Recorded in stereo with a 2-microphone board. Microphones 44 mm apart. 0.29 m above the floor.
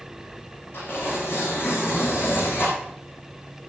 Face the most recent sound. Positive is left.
turn(degrees=55)  # may be behind; listen again after turning